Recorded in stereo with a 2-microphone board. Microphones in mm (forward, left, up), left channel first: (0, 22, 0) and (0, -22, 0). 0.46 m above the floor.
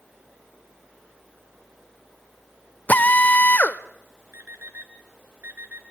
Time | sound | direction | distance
2.9 | a drill | 40° left (ahead or behind) | 0.8 m
4.3 | an alarm clock | 50° right (ahead or behind) | 2.5 m